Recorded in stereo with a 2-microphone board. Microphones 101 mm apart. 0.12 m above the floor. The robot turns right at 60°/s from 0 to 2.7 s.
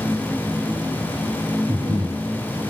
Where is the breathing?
55° right, 2.5 m; by 2.2 s 25° right, 2.5 m.